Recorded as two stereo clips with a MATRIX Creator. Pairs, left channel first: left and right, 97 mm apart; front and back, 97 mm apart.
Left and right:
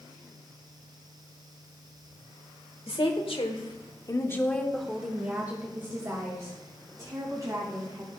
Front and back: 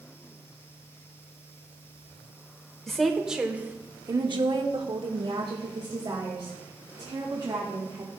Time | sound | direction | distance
2.9 | a woman speaking | 85° left | 1.5 m